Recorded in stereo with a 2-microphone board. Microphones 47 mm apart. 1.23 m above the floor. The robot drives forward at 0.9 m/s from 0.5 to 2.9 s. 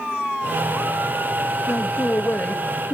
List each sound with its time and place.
1.7 s a man speaking: 60° left (ahead or behind), 1.2 m; by 2.9 s 35° left (ahead or behind), 2 m